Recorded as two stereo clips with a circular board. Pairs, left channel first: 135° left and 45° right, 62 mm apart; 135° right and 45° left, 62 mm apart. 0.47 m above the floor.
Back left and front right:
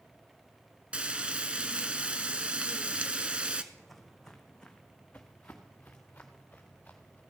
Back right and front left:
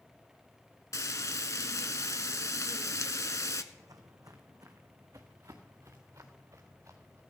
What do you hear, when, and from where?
0.9 s frying: 110° right, 0.9 m
3.7 s footsteps: 45° left, 1.4 m; by 7.2 s 75° left, 3 m